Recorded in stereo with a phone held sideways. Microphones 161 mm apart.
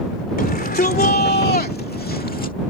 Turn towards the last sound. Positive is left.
turn(degrees=60)  # may be behind; listen again after turning